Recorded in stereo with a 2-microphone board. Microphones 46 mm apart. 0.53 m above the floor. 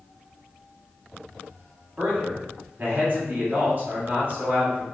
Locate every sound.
2.0 s a man speaking: 40° right (ahead or behind), 1.7 m